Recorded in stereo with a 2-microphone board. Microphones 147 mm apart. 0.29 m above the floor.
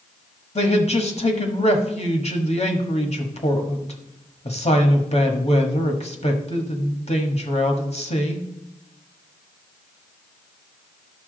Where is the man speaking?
45° left (ahead or behind), 1.4 m.